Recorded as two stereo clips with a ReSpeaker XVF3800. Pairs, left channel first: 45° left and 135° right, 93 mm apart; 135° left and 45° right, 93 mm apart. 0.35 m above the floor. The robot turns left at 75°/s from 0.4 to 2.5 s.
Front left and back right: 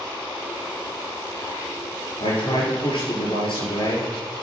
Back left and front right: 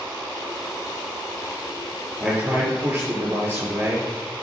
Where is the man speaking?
45° left, 6 m; by 4.1 s 20° left, 6 m.